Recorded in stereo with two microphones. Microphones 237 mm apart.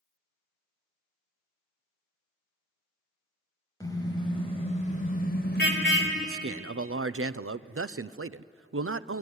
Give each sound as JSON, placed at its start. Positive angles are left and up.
{"t": 3.8, "sound": "a car horn", "side_deg": 15, "distance_m": 4.5}
{"t": 6.2, "sound": "a man speaking", "side_deg": -65, "distance_m": 0.5}